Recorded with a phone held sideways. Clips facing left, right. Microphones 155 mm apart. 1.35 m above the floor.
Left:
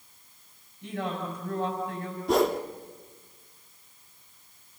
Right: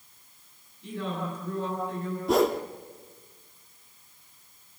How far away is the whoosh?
About 1.0 m.